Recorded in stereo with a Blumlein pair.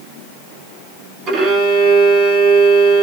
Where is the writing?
No writing in this recording.